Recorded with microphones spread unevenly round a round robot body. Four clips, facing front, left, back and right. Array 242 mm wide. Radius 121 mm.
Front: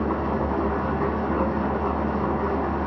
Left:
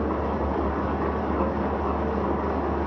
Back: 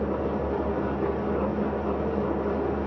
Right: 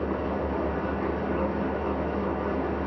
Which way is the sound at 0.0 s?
20° left.